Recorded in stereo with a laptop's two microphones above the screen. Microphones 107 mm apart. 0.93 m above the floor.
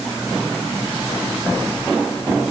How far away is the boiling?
I don't hear boiling.